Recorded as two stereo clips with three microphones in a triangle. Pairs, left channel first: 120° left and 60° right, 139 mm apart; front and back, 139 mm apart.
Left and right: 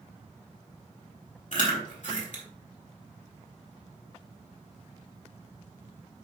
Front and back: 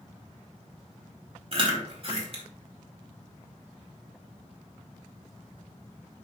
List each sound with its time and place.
1.5 s chewing: 135° left, 2 m